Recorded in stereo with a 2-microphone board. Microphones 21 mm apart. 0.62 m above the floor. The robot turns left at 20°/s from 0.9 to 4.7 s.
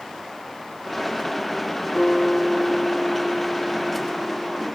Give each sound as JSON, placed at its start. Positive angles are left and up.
{"t": 1.9, "sound": "a guitar", "azimuth_deg": 25, "distance_m": 0.9}